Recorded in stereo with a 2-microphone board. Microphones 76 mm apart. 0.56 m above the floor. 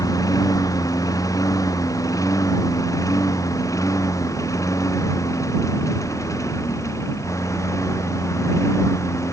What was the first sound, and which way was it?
A lawn mower, 50° left (ahead or behind).